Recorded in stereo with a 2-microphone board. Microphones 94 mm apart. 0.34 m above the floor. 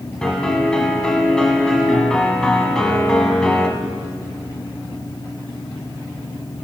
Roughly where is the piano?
Centre.